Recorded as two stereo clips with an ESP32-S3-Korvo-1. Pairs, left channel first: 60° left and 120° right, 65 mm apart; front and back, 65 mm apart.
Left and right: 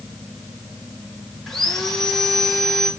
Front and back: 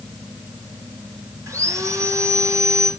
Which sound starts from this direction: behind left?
Sawing, at 1.5 s.